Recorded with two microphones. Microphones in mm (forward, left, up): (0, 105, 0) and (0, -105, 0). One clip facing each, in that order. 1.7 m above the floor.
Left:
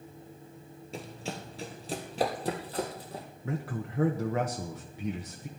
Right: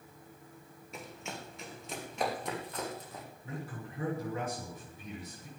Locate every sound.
0.9 s running footsteps: 30° left (ahead or behind), 1.9 m
3.5 s a man speaking: 70° left (ahead or behind), 1.4 m